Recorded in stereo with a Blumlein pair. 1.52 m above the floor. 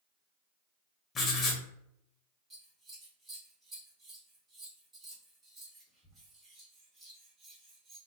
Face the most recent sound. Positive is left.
turn(degrees=-20)